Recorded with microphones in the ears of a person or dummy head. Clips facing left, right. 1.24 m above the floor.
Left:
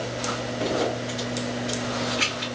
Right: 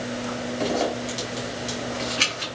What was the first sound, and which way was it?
A zipper, 40° right (ahead or behind).